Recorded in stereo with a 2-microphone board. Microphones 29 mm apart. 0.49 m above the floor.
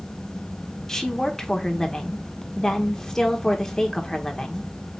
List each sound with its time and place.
0.9 s a woman speaking: 15° left (ahead or behind), 0.9 m